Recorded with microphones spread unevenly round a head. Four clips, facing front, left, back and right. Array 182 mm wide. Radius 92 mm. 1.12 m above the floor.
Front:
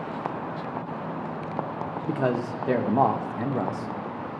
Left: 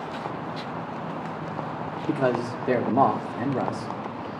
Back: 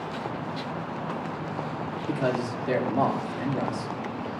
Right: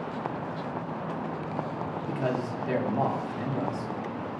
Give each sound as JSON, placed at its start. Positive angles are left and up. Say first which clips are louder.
{"t": 2.1, "sound": "a man speaking", "louder": "left 7 dB, front 1 dB", "azimuth_deg": 60, "distance_m": 1.5}